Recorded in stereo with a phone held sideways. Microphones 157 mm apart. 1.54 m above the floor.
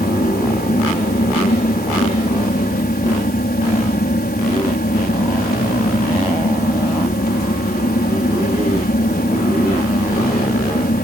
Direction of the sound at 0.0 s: 80° left.